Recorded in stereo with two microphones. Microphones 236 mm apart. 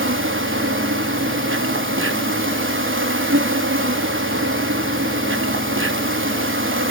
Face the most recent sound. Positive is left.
turn(degrees=-55)  # may be behind; listen again after turning